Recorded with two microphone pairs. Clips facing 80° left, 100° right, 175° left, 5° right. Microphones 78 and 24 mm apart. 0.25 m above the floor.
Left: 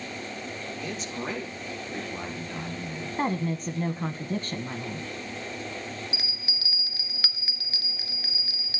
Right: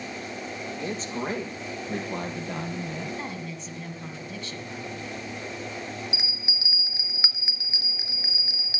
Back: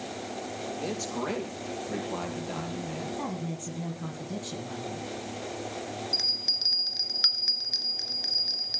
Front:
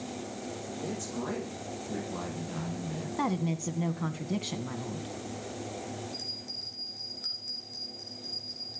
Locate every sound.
0.8 s a man speaking: 155° right, 7 m; by 3.1 s 125° right, 7 m
3.2 s a woman speaking: 50° left, 1.5 m
6.1 s a bell: 170° right, 1.5 m